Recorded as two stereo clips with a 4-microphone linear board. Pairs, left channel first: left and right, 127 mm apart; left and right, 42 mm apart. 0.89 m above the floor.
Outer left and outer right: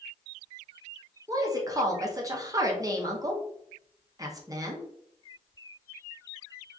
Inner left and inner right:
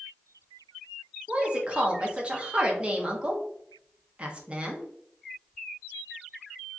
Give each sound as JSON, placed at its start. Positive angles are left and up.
{"t": 1.3, "sound": "a woman speaking", "side_deg": -25, "distance_m": 0.7}